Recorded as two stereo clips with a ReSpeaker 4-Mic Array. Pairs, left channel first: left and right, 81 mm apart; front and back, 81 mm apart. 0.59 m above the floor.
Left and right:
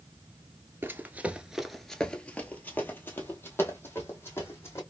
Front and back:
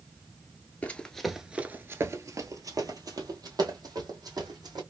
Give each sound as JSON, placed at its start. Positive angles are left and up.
{"t": 0.8, "sound": "running footsteps", "azimuth_deg": -50, "distance_m": 0.6}